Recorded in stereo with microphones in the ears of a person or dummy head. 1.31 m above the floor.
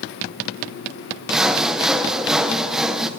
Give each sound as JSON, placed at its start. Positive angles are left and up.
{"t": 1.3, "sound": "sawing", "side_deg": 0, "distance_m": 0.6}